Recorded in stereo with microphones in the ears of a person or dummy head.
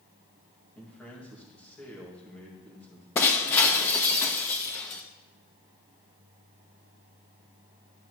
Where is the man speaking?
5° left (ahead or behind), 2 m.